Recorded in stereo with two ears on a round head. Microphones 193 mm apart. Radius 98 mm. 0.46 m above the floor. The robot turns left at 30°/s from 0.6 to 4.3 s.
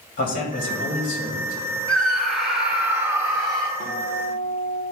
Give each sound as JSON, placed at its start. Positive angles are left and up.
{"t": 0.2, "sound": "a man speaking", "azimuth_deg": 50, "distance_m": 2.5}
{"t": 1.9, "sound": "a scream", "side_deg": 5, "distance_m": 0.8}
{"t": 3.8, "sound": "a guitar", "side_deg": -15, "distance_m": 3.0}